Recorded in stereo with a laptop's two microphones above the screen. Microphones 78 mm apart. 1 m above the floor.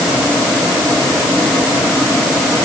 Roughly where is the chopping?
No chopping in this recording.